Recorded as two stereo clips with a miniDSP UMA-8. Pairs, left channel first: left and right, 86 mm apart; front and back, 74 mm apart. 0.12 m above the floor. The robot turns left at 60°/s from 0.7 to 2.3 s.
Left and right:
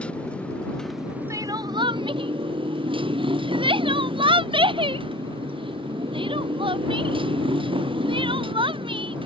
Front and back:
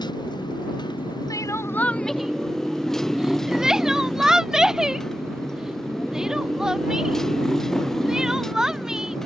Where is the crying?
40° right; by 9.2 s 100° right.